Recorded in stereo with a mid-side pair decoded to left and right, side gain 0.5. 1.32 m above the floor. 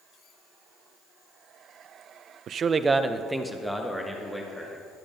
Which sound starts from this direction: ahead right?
A man speaking, at 2.5 s.